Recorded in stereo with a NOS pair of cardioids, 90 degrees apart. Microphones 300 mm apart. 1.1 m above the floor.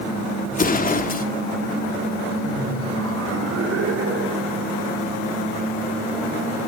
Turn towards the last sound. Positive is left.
turn(degrees=-60)